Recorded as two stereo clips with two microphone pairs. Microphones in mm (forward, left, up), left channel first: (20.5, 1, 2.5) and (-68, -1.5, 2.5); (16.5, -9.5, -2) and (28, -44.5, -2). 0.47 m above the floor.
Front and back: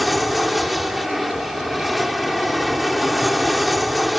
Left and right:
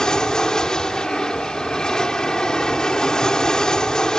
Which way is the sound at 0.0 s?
95° left.